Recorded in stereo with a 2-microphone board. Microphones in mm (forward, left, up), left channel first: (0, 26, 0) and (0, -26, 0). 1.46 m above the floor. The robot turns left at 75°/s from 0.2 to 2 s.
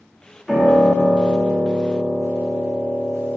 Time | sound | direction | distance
0.5 | a piano | straight behind | 1.7 m